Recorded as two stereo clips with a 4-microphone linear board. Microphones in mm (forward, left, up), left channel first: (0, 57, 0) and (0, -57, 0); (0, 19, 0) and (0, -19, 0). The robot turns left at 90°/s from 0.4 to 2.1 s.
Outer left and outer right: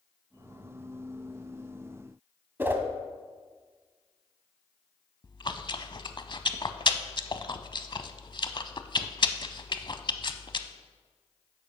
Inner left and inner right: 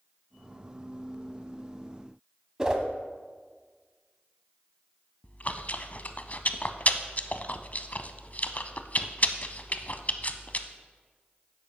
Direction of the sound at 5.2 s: 45° left (ahead or behind).